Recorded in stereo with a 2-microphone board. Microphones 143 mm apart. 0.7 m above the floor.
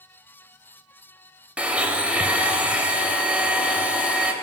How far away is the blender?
About 0.6 m.